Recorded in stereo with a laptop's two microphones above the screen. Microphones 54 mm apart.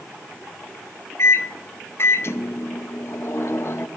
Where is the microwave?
50° left (ahead or behind), 0.5 m.